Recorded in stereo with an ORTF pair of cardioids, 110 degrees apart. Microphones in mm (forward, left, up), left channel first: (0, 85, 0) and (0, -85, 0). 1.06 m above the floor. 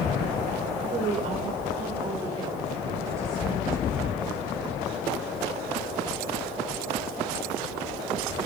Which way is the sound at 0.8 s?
50° right.